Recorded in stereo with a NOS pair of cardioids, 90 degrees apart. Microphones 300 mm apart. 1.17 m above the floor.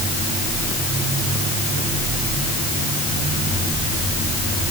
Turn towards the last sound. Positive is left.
No sound to turn to.